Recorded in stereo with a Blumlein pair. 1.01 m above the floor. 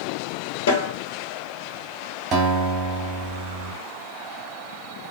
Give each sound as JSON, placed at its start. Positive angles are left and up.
{"t": 0.7, "sound": "a snare drum", "azimuth_deg": 60, "distance_m": 1.2}
{"t": 2.3, "sound": "a guitar", "azimuth_deg": -30, "distance_m": 1.3}